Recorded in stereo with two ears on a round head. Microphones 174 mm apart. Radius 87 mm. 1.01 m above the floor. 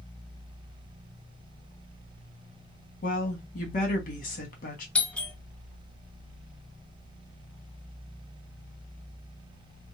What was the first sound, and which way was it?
A woman speaking, 45° left (ahead or behind).